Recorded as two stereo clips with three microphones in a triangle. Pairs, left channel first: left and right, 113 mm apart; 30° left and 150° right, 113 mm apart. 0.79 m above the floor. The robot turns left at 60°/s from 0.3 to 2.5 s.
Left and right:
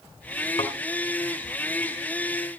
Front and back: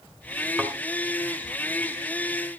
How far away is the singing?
I don't hear singing.